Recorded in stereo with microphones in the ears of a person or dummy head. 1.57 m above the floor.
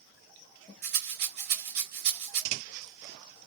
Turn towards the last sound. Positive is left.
turn(degrees=-50)  # may be behind; listen again after turning